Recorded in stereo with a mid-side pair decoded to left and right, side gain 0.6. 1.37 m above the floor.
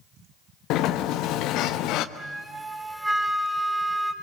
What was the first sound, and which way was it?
A sliding door, 70° left.